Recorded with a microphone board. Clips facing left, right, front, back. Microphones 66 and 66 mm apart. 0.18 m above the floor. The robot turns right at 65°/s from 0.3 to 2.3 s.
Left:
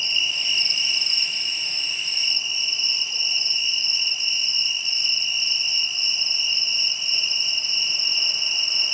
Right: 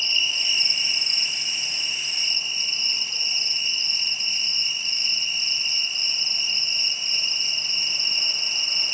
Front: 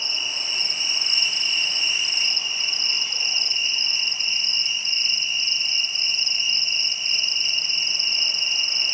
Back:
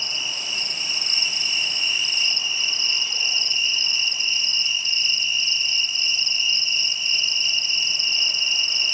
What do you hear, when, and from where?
0.0 s an insect: 170° left, 2.5 m; by 8.9 s 60° right, 2.5 m